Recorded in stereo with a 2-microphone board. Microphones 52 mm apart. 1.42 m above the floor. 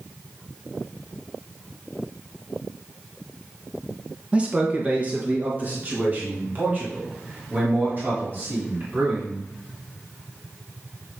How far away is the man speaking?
About 1.1 m.